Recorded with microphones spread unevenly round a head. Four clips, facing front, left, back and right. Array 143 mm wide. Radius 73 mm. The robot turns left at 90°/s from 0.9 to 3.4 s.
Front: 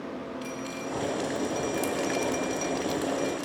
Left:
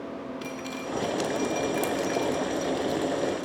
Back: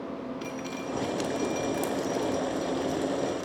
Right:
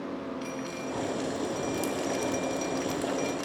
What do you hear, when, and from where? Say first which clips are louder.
0.4 s dripping: even, even; 145° left, 1.6 m; by 3.5 s 80° right, 1.6 m